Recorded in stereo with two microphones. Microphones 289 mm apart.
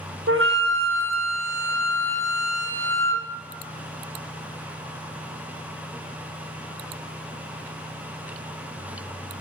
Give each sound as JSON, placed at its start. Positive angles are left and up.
{"t": 0.3, "sound": "a flute", "side_deg": -45, "distance_m": 1.5}